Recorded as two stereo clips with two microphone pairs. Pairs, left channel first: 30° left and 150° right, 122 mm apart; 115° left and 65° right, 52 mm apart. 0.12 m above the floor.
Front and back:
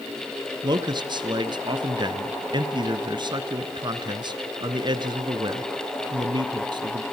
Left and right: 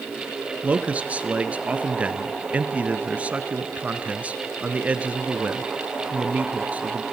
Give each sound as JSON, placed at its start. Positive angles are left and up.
{"t": 0.6, "sound": "a man speaking", "azimuth_deg": -120, "distance_m": 1.4}